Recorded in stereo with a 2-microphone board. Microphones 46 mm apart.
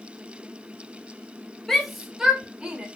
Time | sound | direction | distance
1.7 | a shout | 10° left (ahead or behind) | 0.9 m